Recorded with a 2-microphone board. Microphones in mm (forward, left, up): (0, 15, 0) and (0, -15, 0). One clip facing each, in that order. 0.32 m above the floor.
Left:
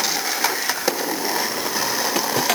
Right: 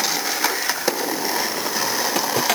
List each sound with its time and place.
Only background noise.